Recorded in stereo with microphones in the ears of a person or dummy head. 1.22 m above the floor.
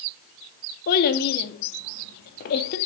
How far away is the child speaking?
About 1.9 m.